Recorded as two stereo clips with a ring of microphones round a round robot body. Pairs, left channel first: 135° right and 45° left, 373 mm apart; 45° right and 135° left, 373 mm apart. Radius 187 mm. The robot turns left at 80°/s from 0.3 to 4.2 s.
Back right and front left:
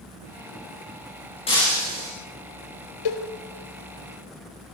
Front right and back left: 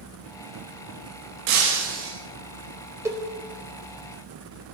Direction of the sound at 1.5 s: 150° left.